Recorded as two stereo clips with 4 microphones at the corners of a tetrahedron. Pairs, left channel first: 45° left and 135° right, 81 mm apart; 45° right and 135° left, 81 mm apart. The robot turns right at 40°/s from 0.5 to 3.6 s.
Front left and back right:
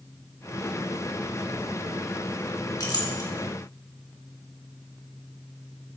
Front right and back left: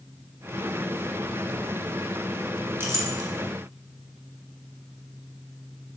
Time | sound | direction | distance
2.8 | a clink | 75° left | 1.6 m